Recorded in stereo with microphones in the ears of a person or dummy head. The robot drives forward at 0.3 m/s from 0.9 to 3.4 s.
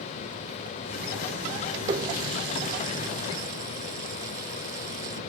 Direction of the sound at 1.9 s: 20° right (ahead or behind).